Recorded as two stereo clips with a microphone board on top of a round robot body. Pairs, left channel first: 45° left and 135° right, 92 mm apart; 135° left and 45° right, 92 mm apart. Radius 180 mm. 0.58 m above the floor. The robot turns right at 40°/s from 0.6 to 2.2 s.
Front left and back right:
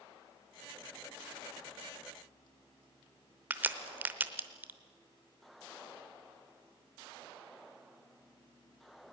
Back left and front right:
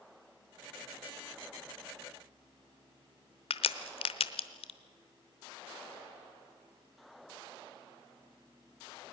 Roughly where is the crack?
Behind left.